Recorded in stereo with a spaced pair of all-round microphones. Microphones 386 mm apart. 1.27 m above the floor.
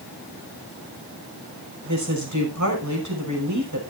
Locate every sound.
1.9 s a woman speaking: 50° right (ahead or behind), 5.5 m